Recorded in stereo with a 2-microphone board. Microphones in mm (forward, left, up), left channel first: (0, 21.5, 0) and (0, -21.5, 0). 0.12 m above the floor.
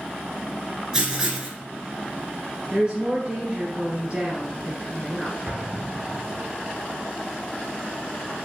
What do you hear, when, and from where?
0.9 s writing: 10° right (ahead or behind), 1.8 m
2.7 s a woman speaking: 20° right (ahead or behind), 1.7 m
5.5 s an explosion: 15° right (ahead or behind), 1.4 m